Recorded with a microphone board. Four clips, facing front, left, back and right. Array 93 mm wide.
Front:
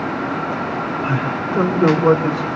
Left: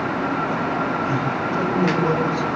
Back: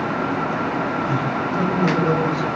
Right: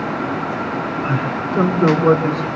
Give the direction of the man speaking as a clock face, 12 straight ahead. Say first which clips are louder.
Right 1 dB, front 1 dB; 1 o'clock.